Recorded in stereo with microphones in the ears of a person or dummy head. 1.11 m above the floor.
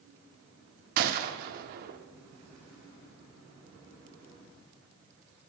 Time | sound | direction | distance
1.0 | a gunshot | 55° right (ahead or behind) | 1.0 m